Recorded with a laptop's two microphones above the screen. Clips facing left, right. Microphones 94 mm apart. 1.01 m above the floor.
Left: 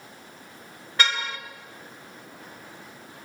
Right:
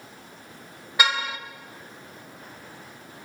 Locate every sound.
1.0 s a car horn: 10° right (ahead or behind), 2 m